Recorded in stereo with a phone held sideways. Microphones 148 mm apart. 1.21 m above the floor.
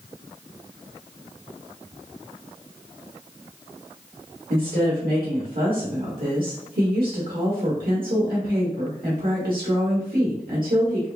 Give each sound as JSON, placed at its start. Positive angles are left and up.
{"t": 4.5, "sound": "a woman speaking", "side_deg": -85, "distance_m": 1.5}